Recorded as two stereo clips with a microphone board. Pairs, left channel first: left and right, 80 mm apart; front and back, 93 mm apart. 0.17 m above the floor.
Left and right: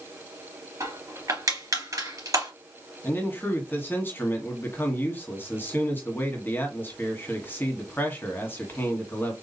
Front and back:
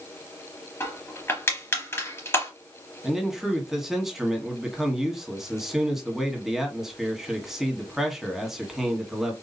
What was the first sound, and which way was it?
Crushing, 60° right.